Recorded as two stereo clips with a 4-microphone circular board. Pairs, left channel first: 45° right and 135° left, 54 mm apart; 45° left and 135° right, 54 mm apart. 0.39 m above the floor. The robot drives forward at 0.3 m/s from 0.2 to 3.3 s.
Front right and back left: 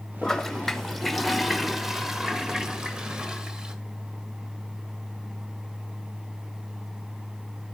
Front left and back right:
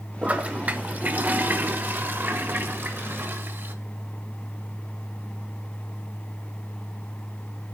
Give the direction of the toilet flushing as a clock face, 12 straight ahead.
4 o'clock.